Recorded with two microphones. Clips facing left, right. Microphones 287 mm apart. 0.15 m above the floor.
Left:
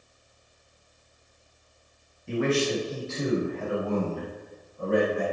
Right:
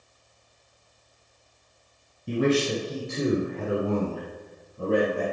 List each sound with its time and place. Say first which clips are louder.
2.3 s a man speaking: right 2 dB; 40° right (ahead or behind), 2.5 m; by 5.2 s 75° right (ahead or behind), 4.5 m